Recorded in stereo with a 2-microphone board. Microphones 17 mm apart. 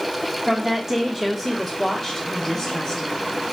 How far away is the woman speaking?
About 0.9 m.